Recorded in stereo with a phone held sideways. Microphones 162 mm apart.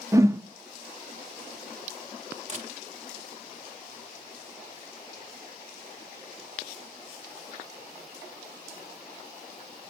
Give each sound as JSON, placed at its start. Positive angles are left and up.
{"t": 0.1, "sound": "a whoosh", "side_deg": -15, "distance_m": 0.5}
{"t": 2.5, "sound": "a camera shutter", "side_deg": -45, "distance_m": 0.9}